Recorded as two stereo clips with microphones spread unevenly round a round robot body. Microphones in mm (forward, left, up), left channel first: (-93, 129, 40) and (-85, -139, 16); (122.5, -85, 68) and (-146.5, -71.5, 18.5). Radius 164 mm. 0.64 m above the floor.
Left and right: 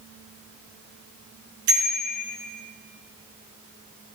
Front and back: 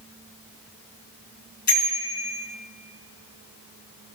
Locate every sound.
1.7 s a bicycle bell: 55° right, 6 m